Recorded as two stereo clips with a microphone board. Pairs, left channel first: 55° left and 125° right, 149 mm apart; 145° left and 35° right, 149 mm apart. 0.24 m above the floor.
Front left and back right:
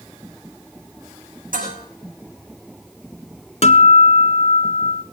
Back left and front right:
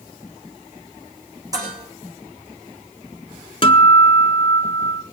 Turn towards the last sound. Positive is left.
turn(degrees=95)